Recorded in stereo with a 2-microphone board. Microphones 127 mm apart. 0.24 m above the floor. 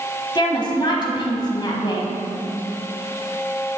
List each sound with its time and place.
0.3 s a woman speaking: 35° left (ahead or behind), 1.5 m